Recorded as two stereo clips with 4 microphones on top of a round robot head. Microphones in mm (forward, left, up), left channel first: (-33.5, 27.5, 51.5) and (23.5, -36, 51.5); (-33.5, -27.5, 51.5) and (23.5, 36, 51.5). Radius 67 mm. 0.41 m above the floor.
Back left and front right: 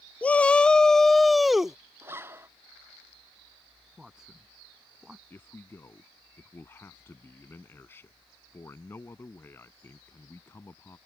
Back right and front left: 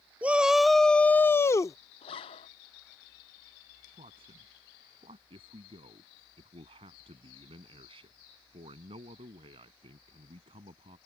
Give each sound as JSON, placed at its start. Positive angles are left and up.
{"t": 0.2, "sound": "a shout", "azimuth_deg": 85}
{"t": 2.0, "sound": "a zipper", "azimuth_deg": -115}
{"t": 4.0, "sound": "a man speaking", "azimuth_deg": 35}
{"t": 5.3, "sound": "a man speaking", "azimuth_deg": 65}